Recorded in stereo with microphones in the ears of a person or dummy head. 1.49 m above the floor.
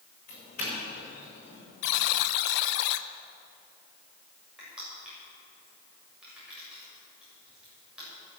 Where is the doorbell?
35° left (ahead or behind), 5.5 m.